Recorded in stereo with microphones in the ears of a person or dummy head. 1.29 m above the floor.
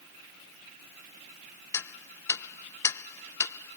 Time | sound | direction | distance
1.7 | ticking | 15° left (ahead or behind) | ?